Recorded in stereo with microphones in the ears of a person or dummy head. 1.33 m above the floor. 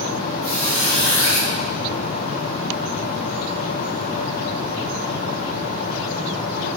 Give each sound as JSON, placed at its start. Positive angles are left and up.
{"t": 0.4, "sound": "a squeak", "side_deg": 70, "distance_m": 1.1}